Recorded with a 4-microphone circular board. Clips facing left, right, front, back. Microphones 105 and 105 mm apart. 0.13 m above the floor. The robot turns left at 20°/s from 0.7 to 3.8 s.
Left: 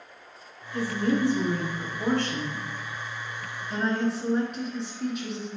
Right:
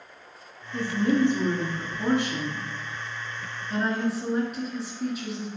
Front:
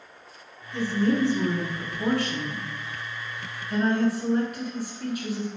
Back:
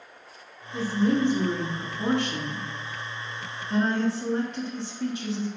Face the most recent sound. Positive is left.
turn(degrees=-175)